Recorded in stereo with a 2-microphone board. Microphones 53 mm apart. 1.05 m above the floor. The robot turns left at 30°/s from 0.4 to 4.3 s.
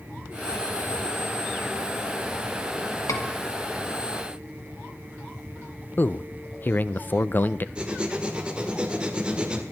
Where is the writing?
20° right (ahead or behind), 1.8 m.